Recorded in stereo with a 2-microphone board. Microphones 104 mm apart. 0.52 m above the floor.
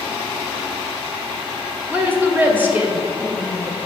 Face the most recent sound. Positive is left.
turn(degrees=-20)  # may be behind; listen again after turning